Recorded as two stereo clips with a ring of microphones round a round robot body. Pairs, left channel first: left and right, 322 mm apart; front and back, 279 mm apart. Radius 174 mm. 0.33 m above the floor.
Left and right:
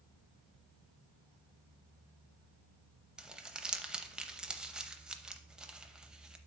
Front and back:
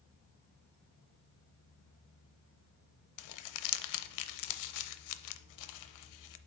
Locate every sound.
3.2 s crumpling: straight ahead, 0.6 m